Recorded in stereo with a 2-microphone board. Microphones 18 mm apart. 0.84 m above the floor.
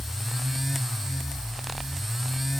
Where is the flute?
No flute in this recording.